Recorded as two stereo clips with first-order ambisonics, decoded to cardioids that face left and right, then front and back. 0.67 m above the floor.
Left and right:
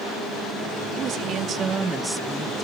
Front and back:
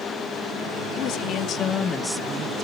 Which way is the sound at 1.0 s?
35° right.